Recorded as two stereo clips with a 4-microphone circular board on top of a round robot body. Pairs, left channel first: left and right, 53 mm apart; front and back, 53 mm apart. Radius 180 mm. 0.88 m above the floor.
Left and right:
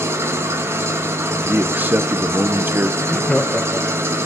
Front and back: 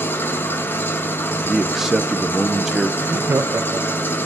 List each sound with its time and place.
0.0 s an engine running: 50° right, 0.9 m
1.4 s a man speaking: 100° right, 0.9 m
3.0 s laughter: 165° left, 0.7 m